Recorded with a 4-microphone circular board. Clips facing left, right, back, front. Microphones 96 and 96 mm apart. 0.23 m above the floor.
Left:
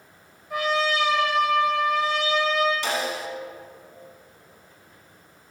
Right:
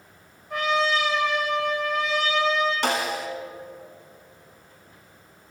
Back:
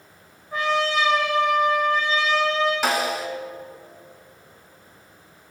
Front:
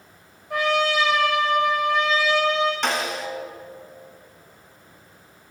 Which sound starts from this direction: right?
A snare drum, at 2.8 s.